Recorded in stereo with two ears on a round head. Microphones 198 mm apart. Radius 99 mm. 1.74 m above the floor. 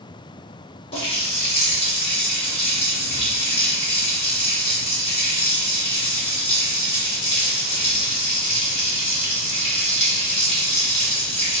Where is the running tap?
25° left (ahead or behind), 1.3 m.